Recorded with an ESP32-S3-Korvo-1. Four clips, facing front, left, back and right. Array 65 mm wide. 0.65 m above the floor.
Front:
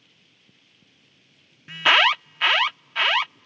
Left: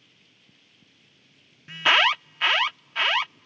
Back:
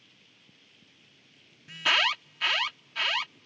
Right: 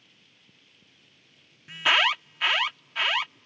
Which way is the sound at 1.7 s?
20° left.